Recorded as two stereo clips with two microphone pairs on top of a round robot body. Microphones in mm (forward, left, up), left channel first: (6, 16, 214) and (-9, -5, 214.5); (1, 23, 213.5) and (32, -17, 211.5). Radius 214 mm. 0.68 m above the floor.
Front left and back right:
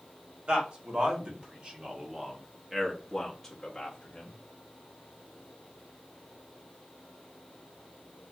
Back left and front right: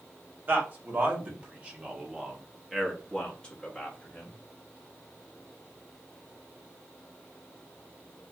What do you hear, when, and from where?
0.5 s a man speaking: 100° right, 1.7 m; by 4.3 s 85° left, 1.3 m